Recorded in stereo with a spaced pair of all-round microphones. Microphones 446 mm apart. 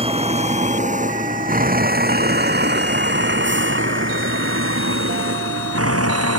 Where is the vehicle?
15° right (ahead or behind); by 6.4 s 35° right (ahead or behind).